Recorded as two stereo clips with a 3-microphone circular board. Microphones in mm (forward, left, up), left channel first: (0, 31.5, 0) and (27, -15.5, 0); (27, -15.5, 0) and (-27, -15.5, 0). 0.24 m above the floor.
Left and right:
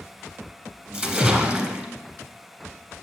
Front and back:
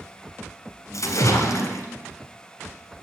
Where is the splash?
5° left, 1.0 m.